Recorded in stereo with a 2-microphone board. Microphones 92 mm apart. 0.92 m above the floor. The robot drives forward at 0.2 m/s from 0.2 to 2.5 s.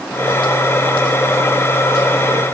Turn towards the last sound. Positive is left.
No sound to turn to.